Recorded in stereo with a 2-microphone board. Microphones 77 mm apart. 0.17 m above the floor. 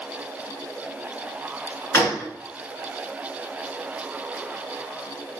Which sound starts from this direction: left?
A gunshot, at 1.9 s.